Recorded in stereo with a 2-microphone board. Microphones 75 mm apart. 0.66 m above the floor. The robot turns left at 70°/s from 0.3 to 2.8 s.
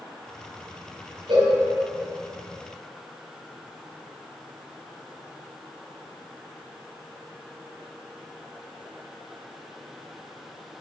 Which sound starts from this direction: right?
A cowbell, at 1.3 s.